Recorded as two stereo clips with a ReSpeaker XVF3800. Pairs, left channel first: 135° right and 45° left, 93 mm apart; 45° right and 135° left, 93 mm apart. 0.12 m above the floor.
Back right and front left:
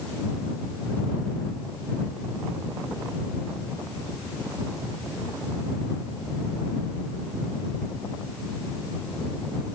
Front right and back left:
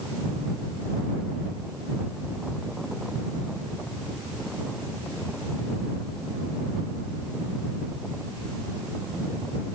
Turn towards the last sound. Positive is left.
No sound to turn to.